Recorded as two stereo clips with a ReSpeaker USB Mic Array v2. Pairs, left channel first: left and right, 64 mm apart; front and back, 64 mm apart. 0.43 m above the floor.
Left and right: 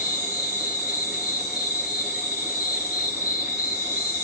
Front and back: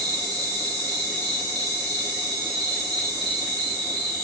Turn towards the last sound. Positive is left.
turn(degrees=-85)